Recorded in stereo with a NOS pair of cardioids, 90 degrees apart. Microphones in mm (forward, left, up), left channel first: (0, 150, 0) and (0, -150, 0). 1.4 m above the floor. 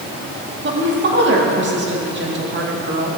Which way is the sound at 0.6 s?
35° right.